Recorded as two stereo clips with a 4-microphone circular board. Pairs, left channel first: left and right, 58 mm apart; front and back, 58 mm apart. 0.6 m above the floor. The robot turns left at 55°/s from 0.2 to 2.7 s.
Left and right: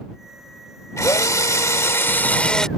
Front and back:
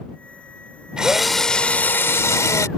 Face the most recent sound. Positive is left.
turn(degrees=10)